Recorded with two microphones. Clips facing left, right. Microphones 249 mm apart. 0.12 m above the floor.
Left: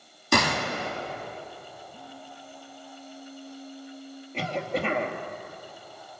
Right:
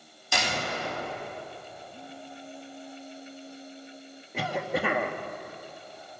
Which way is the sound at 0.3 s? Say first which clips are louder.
Left 6 dB; 60° left (ahead or behind).